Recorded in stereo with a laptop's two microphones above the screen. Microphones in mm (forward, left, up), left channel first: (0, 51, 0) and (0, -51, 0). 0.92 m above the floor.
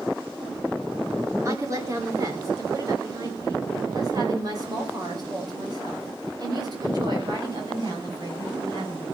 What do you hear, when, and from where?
1.4 s a woman speaking: 35° right (ahead or behind), 3 m; by 9.1 s 45° right (ahead or behind), 8 m